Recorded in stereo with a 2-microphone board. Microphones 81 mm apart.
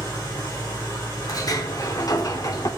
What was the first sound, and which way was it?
An engine running, 40° left (ahead or behind).